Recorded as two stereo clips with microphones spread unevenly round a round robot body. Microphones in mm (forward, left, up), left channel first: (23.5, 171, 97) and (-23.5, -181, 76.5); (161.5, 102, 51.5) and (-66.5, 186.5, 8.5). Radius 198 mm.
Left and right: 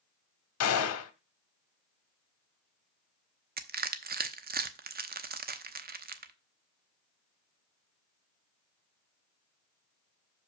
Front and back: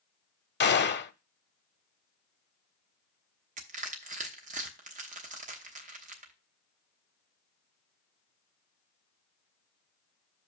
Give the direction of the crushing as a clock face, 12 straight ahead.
5 o'clock.